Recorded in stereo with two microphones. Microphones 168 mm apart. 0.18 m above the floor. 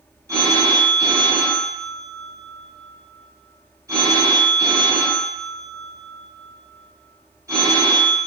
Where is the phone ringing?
20° right (ahead or behind), 1.3 m.